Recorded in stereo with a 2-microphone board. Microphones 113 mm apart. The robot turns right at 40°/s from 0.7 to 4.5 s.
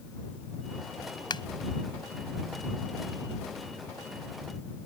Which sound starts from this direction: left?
A finger snap, at 1.3 s.